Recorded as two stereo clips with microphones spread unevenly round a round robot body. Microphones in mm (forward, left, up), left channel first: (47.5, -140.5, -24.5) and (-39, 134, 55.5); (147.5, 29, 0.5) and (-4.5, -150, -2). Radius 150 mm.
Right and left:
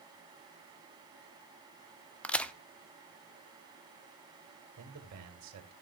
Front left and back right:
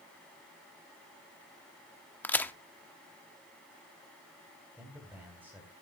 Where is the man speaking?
145° left, 2.5 m.